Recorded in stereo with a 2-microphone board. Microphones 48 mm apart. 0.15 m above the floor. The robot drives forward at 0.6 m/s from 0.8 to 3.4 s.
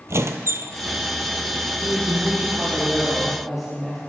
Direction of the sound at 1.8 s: 5° right (ahead or behind).